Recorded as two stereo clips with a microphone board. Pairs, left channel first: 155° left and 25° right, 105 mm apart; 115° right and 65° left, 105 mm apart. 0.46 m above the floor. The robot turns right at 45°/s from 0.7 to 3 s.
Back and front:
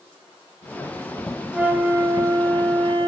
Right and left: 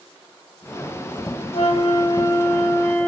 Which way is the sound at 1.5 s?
100° right.